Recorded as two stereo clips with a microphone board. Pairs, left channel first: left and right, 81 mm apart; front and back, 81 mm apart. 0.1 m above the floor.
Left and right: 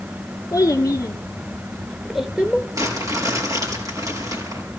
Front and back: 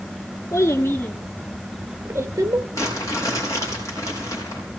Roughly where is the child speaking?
Ahead left.